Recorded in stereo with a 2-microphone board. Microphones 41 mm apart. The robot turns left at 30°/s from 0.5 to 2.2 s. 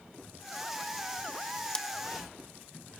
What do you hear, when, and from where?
1.7 s scissors: 20° left (ahead or behind); by 1.9 s 15° left (ahead or behind)